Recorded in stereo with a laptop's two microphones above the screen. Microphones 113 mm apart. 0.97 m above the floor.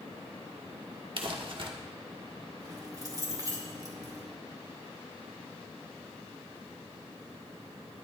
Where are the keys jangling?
30° right (ahead or behind), 2.5 m.